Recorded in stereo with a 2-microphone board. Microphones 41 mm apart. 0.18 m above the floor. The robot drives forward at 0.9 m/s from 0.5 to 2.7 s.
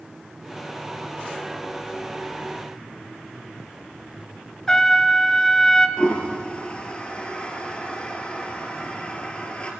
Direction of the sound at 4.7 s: 15° left (ahead or behind).